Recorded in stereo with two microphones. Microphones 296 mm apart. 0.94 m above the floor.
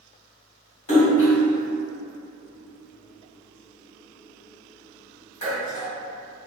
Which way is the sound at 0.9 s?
70° left (ahead or behind).